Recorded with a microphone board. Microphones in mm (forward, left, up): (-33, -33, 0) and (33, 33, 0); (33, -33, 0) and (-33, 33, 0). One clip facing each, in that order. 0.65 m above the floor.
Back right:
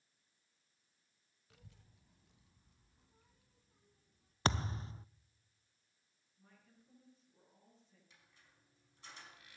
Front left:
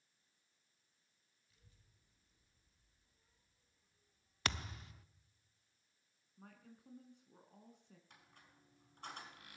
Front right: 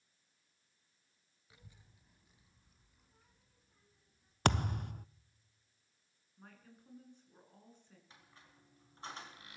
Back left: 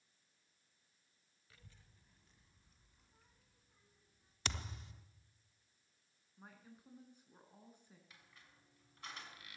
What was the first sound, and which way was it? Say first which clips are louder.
A child speaking: back right 11 dB, front right 3 dB; 120° right.